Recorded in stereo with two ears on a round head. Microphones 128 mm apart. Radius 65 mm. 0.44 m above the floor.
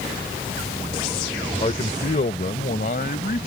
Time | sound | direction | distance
1.6 | a man speaking | 40° left (ahead or behind) | ?